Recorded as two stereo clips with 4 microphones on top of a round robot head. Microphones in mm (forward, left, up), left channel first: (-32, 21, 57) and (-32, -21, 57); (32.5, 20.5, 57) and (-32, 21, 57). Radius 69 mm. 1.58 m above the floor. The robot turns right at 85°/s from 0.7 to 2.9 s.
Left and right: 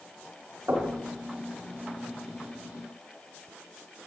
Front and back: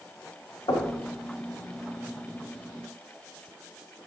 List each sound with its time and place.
0.7 s knocking: 25° right, 1.4 m; by 1.0 s straight ahead, 1.4 m